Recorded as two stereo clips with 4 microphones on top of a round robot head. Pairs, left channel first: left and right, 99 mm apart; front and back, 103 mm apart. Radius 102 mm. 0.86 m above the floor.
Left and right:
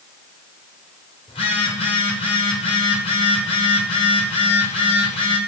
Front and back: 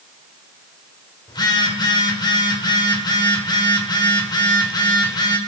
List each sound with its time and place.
1.3 s a phone buzzing: 45° left, 1.5 m